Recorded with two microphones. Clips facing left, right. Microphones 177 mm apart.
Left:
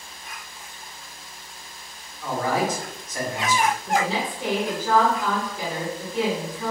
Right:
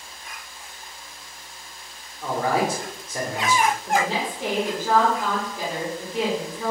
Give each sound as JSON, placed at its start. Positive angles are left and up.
{"t": 2.2, "sound": "a man speaking", "side_deg": -30, "distance_m": 1.2}
{"t": 3.9, "sound": "a woman speaking", "side_deg": -20, "distance_m": 1.3}